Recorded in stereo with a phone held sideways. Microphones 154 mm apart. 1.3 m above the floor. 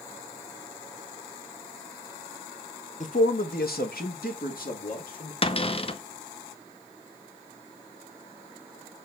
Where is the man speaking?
55° left (ahead or behind), 1.1 m; by 5.3 s 65° left (ahead or behind), 3 m.